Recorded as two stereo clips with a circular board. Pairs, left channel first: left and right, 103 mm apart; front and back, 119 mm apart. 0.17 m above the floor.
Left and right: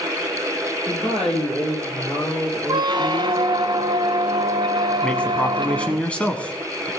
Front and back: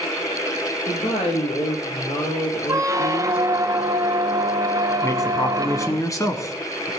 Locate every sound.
0.9 s a woman speaking: 10° left, 5.5 m
2.7 s a squeak: 125° right, 0.6 m
5.0 s a man speaking: 25° left, 1.4 m